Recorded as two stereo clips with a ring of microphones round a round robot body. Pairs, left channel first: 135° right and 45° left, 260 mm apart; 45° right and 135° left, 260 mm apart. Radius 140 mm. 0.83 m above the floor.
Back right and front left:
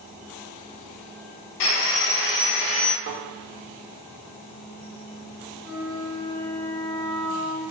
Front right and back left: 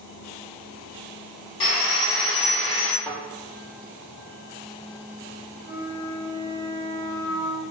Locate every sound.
1.6 s sawing: 115° right, 0.7 m
3.0 s a thud: 40° left, 1.1 m
5.6 s a flute: 160° left, 1.3 m